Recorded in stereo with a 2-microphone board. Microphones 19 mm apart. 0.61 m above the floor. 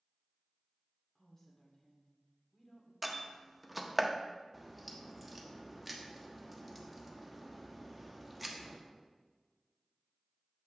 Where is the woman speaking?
30° left (ahead or behind), 1.9 m.